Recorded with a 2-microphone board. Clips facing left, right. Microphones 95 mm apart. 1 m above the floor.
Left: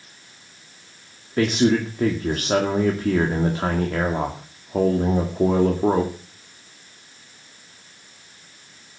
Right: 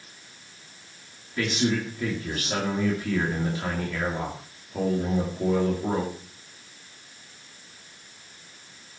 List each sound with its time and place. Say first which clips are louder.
1.4 s a man speaking: left 7 dB; 50° left (ahead or behind), 2 m